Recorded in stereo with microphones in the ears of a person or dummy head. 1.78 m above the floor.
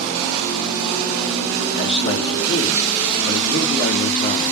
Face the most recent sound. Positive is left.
turn(degrees=35)  # may be behind; listen again after turning